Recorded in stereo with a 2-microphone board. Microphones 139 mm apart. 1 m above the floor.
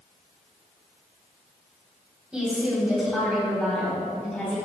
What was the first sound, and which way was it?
A woman speaking, 5° right (ahead or behind).